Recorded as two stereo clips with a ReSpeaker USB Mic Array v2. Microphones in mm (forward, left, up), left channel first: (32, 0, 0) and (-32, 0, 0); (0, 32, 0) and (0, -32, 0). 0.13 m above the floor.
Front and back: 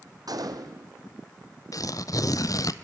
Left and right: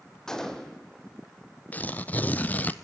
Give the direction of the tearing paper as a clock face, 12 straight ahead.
11 o'clock.